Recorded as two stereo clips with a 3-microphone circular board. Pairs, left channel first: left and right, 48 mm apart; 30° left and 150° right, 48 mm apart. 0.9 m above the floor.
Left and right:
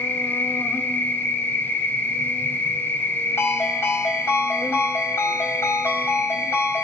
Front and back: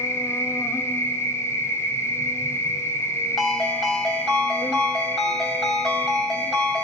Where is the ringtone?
120° left, 3.5 m.